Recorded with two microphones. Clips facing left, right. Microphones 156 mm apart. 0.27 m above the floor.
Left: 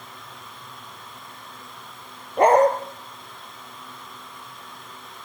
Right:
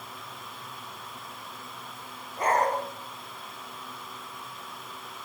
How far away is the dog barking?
About 2.5 m.